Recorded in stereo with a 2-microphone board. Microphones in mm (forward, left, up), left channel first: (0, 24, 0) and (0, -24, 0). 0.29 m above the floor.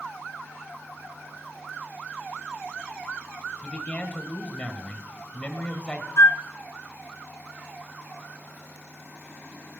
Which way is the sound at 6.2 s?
70° left (ahead or behind).